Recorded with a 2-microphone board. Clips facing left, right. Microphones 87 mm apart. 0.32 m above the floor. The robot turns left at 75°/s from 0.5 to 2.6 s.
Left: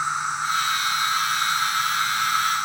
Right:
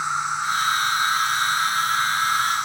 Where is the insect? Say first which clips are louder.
Right 1 dB; 160° right, 1.1 m; by 2.6 s 40° left, 1.1 m.